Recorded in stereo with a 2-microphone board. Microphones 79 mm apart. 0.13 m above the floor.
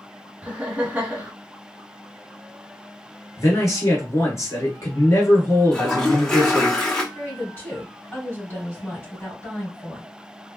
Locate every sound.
0.4 s laughter: 20° right (ahead or behind), 1.1 m
3.4 s a man speaking: 35° left (ahead or behind), 1.7 m
5.7 s a toilet flushing: 10° left (ahead or behind), 0.9 m
7.1 s a woman speaking: 30° left (ahead or behind), 2.5 m